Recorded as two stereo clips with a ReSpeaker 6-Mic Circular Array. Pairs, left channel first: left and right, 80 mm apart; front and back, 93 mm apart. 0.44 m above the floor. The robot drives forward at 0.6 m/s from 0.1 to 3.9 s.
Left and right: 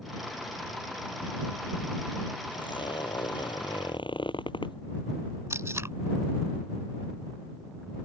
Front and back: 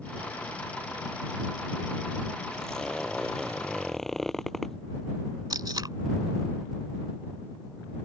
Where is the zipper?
85° left.